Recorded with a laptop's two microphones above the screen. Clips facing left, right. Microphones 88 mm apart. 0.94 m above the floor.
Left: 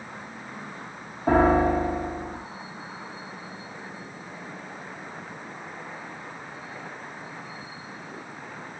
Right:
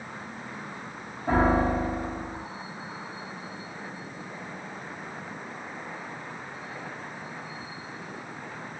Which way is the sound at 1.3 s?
65° left (ahead or behind).